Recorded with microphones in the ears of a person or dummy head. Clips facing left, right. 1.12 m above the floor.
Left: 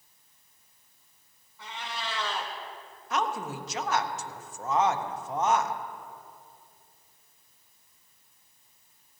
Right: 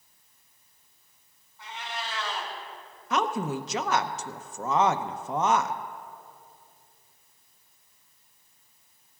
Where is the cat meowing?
70° left (ahead or behind), 2.5 m.